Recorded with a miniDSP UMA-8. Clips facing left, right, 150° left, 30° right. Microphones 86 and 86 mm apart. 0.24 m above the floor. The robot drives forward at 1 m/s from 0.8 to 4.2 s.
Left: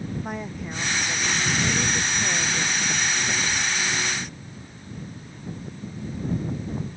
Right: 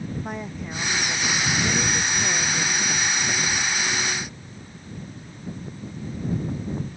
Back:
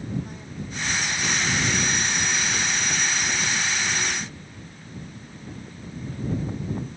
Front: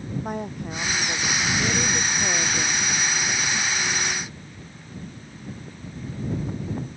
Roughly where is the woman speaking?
Ahead.